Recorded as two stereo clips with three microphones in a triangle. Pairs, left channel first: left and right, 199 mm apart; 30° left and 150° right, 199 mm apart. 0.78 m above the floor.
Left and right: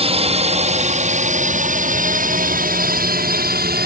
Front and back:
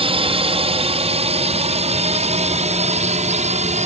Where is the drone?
115° right; by 3.9 s 105° right.